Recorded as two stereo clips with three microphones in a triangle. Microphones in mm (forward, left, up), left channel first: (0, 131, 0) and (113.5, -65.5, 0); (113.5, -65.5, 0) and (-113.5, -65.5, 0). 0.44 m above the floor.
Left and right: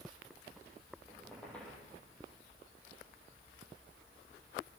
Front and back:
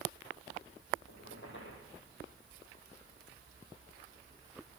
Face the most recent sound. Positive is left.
turn(degrees=35)